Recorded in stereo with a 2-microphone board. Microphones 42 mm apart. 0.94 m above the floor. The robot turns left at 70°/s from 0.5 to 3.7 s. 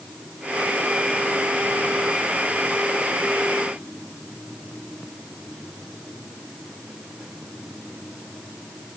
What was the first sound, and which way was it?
Only background noise.